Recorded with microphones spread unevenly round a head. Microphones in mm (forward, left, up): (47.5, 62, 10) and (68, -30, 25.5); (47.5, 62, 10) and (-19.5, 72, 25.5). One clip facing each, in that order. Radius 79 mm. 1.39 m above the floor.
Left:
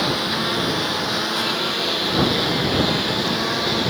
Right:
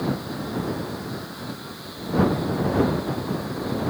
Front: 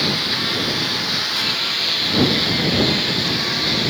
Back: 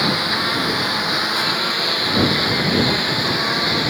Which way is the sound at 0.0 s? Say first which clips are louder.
Left 5 dB, back 3 dB; 120° left.